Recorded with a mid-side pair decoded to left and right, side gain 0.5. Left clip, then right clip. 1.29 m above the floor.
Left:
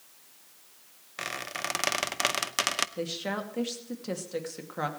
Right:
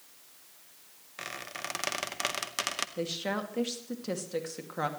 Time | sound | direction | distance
1.2 | a squeak | 30° left | 0.7 m
3.0 | a woman speaking | straight ahead | 2.5 m